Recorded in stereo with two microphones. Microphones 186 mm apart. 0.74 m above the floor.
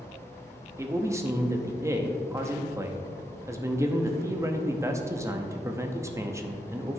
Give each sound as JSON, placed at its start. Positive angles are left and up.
{"t": 0.8, "sound": "a man speaking", "side_deg": -15, "distance_m": 0.6}